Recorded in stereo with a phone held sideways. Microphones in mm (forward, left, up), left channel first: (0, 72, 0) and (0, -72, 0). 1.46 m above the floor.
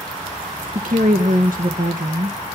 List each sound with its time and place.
0.8 s a woman speaking: 70° right (ahead or behind), 1.0 m